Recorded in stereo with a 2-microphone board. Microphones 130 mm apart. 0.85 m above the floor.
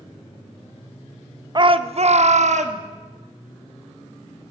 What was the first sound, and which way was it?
A shout, 35° right (ahead or behind).